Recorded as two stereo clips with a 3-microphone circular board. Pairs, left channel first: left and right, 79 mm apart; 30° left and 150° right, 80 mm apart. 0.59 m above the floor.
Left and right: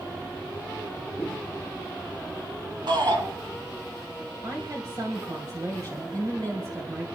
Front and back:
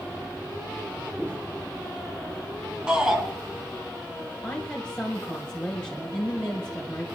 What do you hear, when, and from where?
1.2 s footsteps: 150° left, 3.5 m
2.9 s a shout: 70° right, 5 m
4.4 s a woman speaking: 45° right, 2.5 m